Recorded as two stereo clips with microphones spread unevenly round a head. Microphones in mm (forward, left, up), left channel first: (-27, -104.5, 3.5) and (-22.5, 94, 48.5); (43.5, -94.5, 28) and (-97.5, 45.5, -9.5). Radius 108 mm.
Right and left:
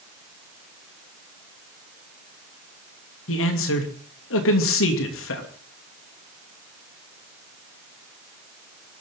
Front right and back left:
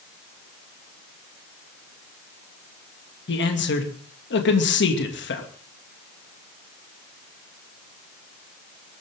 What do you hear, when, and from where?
3.3 s a man speaking: 75° right, 2.5 m